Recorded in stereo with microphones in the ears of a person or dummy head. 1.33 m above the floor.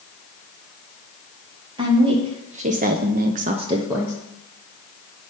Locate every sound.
1.8 s a woman speaking: 25° right (ahead or behind), 1.3 m; by 4.2 s 10° right (ahead or behind), 0.8 m